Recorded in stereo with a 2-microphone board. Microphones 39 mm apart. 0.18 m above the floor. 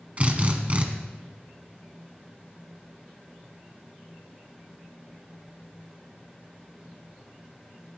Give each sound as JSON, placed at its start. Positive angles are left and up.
{"t": 0.2, "sound": "a drill", "side_deg": -35, "distance_m": 1.7}